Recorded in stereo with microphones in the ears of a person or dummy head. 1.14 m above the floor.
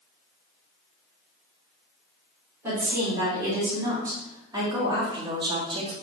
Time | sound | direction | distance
2.6 | a woman speaking | 15° right (ahead or behind) | 3.5 m